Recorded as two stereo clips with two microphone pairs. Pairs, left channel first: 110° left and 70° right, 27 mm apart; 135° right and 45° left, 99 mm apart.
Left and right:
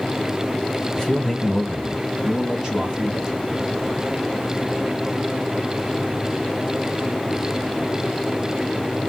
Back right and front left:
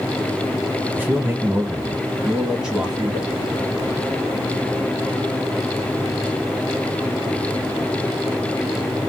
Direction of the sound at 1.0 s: 90° left.